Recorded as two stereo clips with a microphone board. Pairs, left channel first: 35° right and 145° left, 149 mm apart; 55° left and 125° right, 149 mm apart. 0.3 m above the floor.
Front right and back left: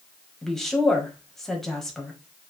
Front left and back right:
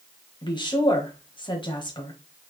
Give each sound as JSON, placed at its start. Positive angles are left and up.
{"t": 0.4, "sound": "a woman speaking", "azimuth_deg": 50, "distance_m": 1.3}